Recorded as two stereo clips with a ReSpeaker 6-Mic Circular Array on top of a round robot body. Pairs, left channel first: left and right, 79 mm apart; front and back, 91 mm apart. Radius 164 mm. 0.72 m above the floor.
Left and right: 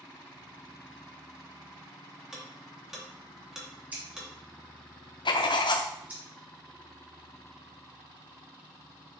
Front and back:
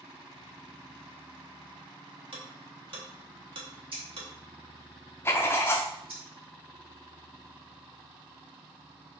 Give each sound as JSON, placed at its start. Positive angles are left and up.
{"t": 2.3, "sound": "ticking", "azimuth_deg": -170, "distance_m": 2.5}
{"t": 3.9, "sound": "scissors", "azimuth_deg": -160, "distance_m": 3.0}
{"t": 5.2, "sound": "writing", "azimuth_deg": 65, "distance_m": 0.5}